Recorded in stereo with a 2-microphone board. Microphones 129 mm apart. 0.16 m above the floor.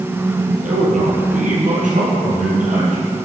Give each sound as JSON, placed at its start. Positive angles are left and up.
{"t": 0.6, "sound": "a man speaking", "side_deg": -70, "distance_m": 4.0}